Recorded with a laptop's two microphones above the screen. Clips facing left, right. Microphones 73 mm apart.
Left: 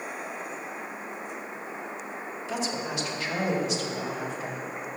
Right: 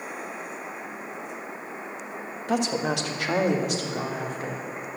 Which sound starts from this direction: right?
A woman speaking, at 2.5 s.